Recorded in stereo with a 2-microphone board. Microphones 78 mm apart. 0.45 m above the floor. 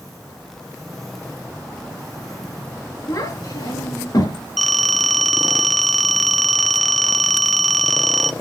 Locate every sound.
3.1 s a child speaking: 65° left (ahead or behind), 3.5 m; by 4.4 s 70° left (ahead or behind), 5 m
4.6 s a phone ringing: centre (ahead or behind), 0.6 m